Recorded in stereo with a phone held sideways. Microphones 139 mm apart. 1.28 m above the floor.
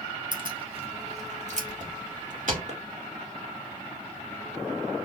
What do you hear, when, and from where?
0.3 s keys jangling: 35° right (ahead or behind), 1.3 m; by 2.6 s 70° right (ahead or behind), 2.5 m
2.7 s a clap: 45° right (ahead or behind), 1.8 m